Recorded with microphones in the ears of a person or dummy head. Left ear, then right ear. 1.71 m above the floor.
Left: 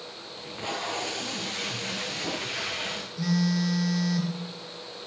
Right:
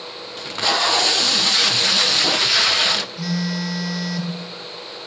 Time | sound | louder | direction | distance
0.4 | tape being pulled | right 14 dB | 60° right (ahead or behind) | 0.6 m
3.2 | a phone buzzing | right 3 dB | 5° right (ahead or behind) | 1.7 m